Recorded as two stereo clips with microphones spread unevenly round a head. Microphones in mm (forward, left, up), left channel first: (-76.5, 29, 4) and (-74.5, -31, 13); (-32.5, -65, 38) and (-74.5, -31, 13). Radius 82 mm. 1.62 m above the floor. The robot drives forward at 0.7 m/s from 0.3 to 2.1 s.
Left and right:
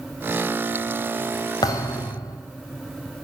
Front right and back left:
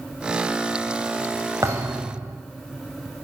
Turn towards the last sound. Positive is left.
turn(degrees=65)